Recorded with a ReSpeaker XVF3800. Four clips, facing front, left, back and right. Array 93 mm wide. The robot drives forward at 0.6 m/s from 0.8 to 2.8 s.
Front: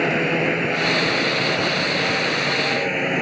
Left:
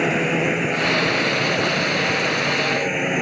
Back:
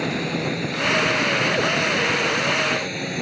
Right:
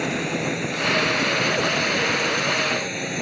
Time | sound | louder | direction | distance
0.0 | a drone | left 5 dB, front 5 dB | 40° left | ?